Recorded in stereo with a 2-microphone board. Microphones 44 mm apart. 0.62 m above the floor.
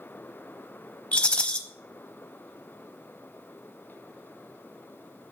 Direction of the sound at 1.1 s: 25° left (ahead or behind).